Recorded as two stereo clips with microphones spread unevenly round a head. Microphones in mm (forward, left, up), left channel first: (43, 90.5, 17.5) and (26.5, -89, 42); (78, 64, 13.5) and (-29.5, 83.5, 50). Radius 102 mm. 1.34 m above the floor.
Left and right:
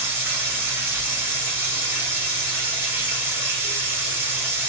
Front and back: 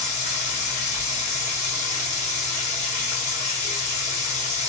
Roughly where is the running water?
Ahead.